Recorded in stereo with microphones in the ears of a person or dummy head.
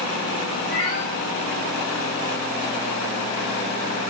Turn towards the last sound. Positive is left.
turn(degrees=65)  # may be behind; listen again after turning